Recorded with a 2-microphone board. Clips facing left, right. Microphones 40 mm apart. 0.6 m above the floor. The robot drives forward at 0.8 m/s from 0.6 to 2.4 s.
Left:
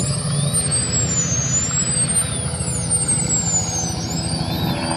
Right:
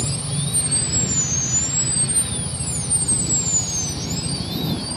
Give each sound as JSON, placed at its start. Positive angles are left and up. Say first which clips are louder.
{"t": 0.0, "sound": "a helicopter", "louder": "left 4 dB", "side_deg": 65}